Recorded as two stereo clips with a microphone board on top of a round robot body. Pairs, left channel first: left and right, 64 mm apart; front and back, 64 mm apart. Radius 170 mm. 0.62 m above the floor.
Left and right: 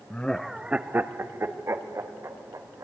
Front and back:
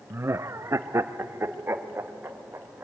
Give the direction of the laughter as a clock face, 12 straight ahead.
7 o'clock.